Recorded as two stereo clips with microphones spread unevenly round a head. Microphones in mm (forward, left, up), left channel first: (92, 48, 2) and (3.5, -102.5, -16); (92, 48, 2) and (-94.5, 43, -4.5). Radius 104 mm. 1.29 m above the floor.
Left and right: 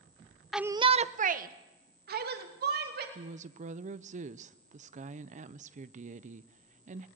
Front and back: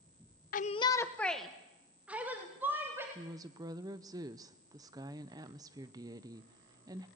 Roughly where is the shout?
Ahead right.